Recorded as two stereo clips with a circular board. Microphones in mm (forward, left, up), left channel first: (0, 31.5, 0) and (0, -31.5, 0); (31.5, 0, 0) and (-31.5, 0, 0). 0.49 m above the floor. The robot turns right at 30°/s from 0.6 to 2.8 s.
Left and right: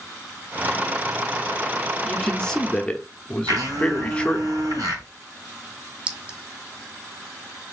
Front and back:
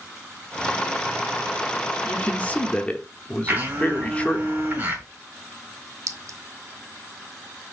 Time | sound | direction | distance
2.0 | a man speaking | 15° left | 0.8 m
3.5 | a blender | 120° right | 3 m
6.1 | a clink | 160° right | 0.6 m